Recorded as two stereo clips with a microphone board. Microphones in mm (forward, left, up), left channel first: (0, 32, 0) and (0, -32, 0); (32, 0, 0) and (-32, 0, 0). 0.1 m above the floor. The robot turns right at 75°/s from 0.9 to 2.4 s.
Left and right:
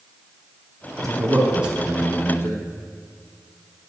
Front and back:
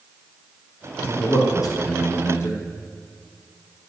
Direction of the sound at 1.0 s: 60° right.